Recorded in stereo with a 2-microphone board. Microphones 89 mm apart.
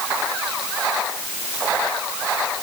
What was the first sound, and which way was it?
Only background noise.